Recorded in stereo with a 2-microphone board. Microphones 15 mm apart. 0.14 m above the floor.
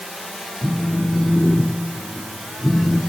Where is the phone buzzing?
15° left (ahead or behind), 1.6 m.